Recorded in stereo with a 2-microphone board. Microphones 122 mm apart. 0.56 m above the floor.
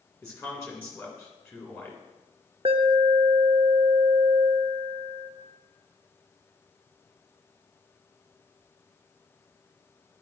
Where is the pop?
No pop in this recording.